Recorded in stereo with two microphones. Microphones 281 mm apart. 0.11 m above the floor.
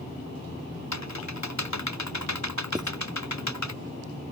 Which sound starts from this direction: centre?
Writing, at 2.8 s.